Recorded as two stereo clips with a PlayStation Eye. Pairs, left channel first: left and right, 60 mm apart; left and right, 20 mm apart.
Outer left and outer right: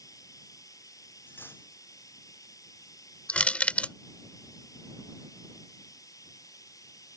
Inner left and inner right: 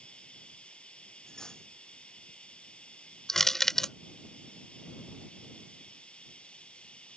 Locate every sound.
0.0 s running water: 85° left
1.3 s cutlery clinking: 35° left (ahead or behind)
3.3 s crushing: 25° left (ahead or behind)